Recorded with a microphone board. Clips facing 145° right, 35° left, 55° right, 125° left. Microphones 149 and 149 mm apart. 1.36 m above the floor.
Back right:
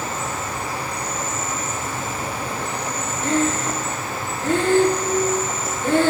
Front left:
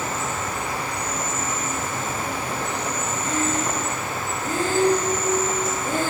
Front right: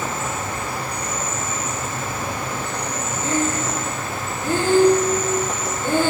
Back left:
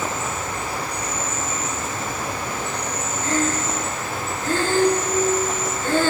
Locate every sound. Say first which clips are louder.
0.0 s an insect: even, even; 90° right, 2.5 m
3.2 s breathing: back right 5 dB, front right 1 dB; 130° right, 0.8 m